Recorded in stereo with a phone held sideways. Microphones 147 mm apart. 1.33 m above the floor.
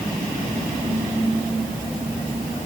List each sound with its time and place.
Only background noise.